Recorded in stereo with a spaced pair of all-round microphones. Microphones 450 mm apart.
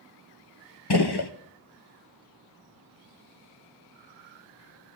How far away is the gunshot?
About 1.1 m.